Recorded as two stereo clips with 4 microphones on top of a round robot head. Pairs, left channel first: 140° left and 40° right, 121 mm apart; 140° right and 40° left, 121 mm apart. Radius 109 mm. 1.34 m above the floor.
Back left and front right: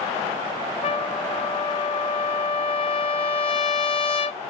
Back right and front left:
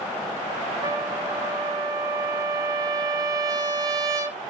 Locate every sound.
0.8 s a trumpet: 105° left, 1.0 m